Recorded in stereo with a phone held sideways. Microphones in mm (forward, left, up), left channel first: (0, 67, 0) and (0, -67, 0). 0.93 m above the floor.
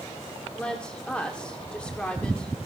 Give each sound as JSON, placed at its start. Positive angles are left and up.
{"t": 0.5, "sound": "a woman speaking", "side_deg": 10, "distance_m": 2.5}